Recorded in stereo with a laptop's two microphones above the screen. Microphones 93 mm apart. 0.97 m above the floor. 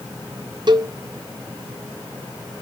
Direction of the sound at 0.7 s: 50° right (ahead or behind).